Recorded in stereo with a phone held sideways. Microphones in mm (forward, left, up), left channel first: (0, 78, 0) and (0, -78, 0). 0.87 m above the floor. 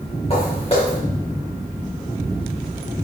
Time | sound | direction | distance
0.3 | footsteps | 40° left (ahead or behind) | 3 m